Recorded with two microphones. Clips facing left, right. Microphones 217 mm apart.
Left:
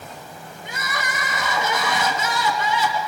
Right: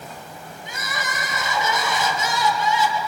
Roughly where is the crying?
Left.